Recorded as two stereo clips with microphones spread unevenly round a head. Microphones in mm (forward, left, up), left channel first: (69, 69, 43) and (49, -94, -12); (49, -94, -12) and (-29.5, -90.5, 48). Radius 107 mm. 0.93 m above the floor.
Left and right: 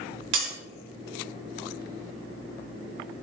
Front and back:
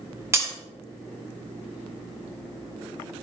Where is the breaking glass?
130° right, 2.5 m.